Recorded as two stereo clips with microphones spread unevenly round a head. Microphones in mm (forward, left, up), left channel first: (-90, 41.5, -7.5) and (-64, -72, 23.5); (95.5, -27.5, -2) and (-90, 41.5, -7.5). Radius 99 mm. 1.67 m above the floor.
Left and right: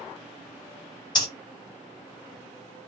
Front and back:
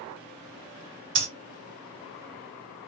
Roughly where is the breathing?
Behind left.